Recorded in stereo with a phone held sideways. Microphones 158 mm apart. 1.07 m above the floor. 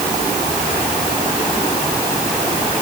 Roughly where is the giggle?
No giggle in this recording.